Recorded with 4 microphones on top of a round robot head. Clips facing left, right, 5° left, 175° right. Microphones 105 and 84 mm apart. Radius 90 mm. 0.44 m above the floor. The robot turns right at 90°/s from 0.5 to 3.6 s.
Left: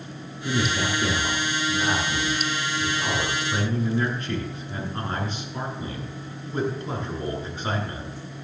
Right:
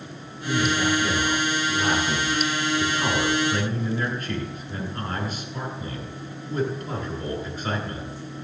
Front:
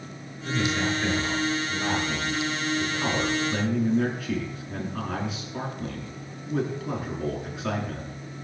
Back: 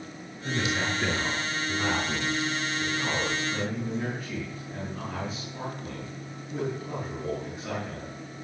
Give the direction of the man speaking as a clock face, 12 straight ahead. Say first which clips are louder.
Right 3 dB, front 3 dB; 9 o'clock.